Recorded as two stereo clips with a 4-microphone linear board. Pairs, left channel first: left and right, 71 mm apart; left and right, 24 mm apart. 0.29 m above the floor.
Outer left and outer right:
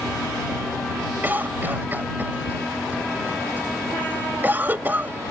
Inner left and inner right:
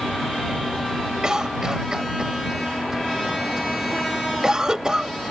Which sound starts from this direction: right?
A cough, at 1.2 s.